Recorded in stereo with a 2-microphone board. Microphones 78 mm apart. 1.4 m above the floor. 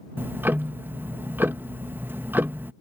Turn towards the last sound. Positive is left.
turn(degrees=-25)  # may be behind; listen again after turning